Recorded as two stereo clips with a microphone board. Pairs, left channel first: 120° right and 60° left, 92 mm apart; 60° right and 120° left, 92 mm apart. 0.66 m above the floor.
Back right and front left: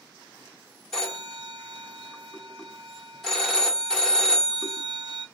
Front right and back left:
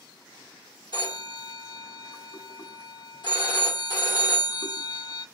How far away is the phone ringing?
About 1.1 m.